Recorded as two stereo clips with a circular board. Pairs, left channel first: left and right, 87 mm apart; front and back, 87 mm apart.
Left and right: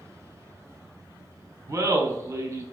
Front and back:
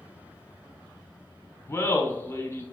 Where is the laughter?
50° right, 1.1 m.